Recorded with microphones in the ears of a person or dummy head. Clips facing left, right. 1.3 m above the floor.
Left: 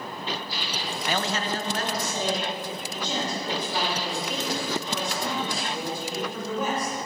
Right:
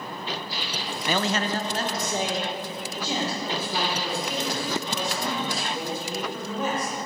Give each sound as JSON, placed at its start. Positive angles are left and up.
{"t": 1.1, "sound": "a man speaking", "side_deg": -75, "distance_m": 0.5}